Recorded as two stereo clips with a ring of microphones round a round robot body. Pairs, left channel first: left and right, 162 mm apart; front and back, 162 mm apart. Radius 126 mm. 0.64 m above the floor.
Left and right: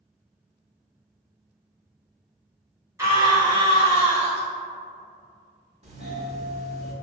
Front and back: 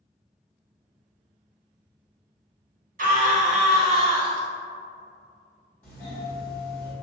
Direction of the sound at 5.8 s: 70° right.